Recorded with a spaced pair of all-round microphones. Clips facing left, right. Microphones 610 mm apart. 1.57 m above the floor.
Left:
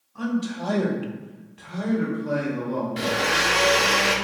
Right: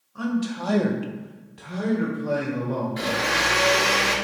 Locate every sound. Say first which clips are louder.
0.1 s a man speaking: even; 15° right (ahead or behind), 1.0 m; by 3.1 s 30° right (ahead or behind), 2.0 m
3.0 s a blender: left 1 dB; 55° left (ahead or behind), 0.6 m